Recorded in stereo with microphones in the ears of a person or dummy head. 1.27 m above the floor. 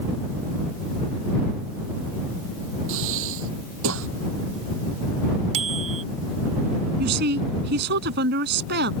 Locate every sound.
2.9 s breathing: 85° right
5.5 s a bicycle bell: 35° right (ahead or behind)
7.0 s a woman speaking: 60° right (ahead or behind)